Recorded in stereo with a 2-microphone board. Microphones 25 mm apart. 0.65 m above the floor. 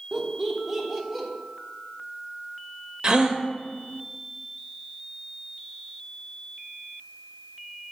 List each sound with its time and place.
0.1 s laughter: 20° right (ahead or behind), 1.0 m; by 1.3 s centre (ahead or behind), 1.5 m
3.0 s a gasp: 30° right (ahead or behind), 0.7 m